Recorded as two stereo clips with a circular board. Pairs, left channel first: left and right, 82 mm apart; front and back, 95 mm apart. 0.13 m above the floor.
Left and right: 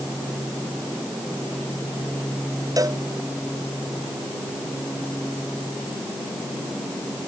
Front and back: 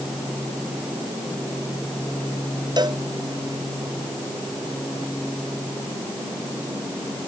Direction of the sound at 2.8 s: 135° right.